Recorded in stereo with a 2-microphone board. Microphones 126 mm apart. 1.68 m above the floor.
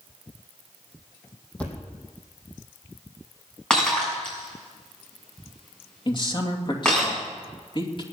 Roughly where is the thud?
Centre.